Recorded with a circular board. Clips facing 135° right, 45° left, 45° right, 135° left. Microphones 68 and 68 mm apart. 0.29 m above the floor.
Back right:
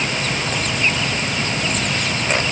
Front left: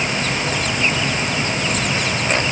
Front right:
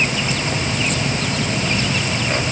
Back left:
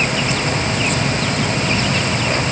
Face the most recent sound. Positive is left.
No sound to turn to.